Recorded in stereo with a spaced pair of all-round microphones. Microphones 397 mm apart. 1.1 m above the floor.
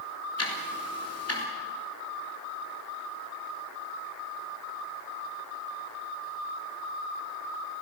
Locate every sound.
0.4 s ticking: 40° left (ahead or behind), 3.5 m